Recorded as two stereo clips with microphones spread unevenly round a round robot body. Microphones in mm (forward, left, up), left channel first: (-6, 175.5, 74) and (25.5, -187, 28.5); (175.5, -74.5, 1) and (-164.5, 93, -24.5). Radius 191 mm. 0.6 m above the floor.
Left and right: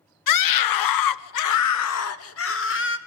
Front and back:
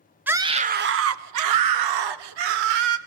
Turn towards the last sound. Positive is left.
turn(degrees=155)